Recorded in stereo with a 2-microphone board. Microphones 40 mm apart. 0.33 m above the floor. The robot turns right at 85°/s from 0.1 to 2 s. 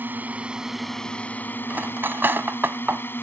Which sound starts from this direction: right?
Cutlery clinking, at 1.7 s.